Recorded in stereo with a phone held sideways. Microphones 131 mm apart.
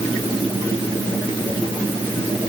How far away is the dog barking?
No dog barking in this recording.